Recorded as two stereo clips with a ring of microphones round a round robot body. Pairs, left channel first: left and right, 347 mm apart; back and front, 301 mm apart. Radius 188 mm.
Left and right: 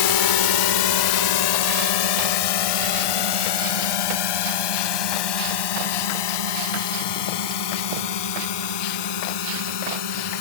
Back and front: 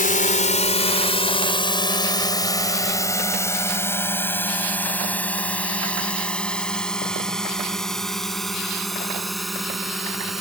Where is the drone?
115° left; by 10.4 s 90° left.